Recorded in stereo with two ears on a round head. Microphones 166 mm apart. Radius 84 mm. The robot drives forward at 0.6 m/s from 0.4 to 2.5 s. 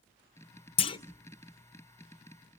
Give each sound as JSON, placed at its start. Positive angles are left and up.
{"t": 0.8, "sound": "a clunk", "side_deg": 30, "distance_m": 0.9}